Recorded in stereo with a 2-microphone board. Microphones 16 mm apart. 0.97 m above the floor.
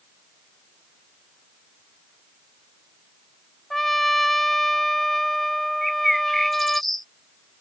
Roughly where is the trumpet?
Centre.